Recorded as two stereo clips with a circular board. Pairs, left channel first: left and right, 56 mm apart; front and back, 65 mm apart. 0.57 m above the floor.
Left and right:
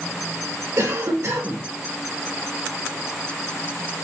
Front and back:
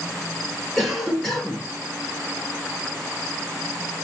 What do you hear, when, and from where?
0.8 s a cough: 85° right, 1.7 m